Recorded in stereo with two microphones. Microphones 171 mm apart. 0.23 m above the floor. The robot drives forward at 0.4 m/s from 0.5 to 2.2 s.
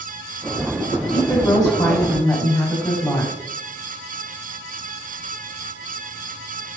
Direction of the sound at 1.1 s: 20° left (ahead or behind).